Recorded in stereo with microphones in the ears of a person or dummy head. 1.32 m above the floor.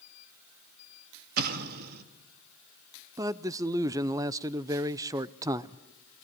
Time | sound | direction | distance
1.4 | an explosion | 60° right (ahead or behind) | 1.7 m
3.2 | a man speaking | 20° right (ahead or behind) | 0.5 m